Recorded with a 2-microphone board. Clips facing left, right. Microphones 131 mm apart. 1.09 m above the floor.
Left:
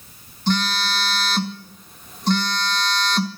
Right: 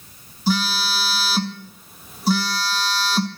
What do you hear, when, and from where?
0.5 s a phone buzzing: 5° right (ahead or behind), 1.4 m